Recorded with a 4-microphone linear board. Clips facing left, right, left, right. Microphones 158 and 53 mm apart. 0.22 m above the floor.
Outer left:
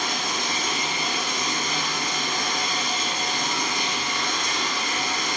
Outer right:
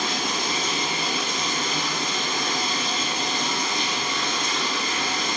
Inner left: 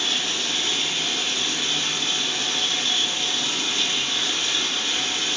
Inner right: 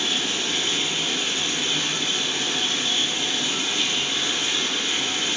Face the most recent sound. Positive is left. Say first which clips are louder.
# outer right 2 dB, inner right 1 dB
turn(degrees=-30)  # may be behind; listen again after turning